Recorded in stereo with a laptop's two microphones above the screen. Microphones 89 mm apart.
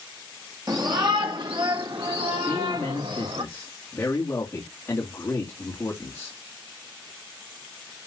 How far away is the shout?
About 1.7 m.